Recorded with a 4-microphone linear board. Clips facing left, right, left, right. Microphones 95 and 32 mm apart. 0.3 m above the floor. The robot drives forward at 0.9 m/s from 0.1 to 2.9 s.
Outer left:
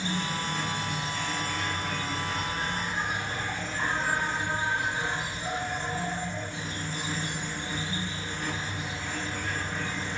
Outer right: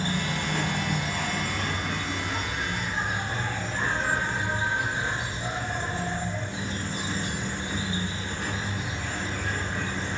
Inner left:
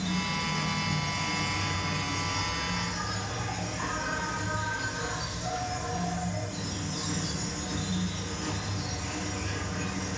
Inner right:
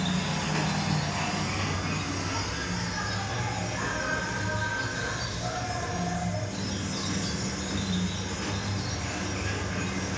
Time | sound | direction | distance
0.0 | an insect | 55° right (ahead or behind) | 1.1 m